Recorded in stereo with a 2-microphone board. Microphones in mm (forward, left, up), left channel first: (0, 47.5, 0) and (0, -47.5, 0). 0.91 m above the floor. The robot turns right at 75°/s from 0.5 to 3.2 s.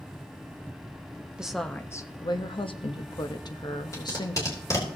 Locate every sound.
1.4 s a woman speaking: 10° right, 0.8 m; by 4.7 s 125° left, 0.8 m
3.9 s tape being pulled: 35° left (ahead or behind), 3 m